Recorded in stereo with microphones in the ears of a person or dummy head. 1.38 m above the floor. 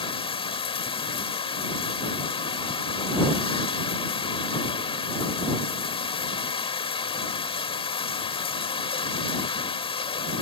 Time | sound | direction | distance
0.0 | running water | 35° left (ahead or behind) | ?